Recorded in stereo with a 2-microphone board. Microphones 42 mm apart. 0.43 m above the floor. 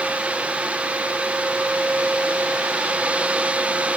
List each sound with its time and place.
Only background noise.